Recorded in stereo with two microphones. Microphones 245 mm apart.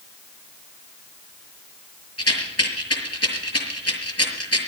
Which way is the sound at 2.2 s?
75° left (ahead or behind).